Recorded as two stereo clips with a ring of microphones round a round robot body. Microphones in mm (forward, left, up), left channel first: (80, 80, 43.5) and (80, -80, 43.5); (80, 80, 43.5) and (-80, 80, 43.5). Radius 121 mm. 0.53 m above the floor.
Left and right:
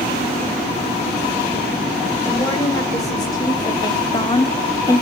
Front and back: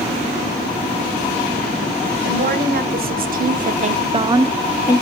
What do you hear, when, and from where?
2.2 s a woman speaking: 165° left, 2.5 m; by 5.0 s 25° left, 0.7 m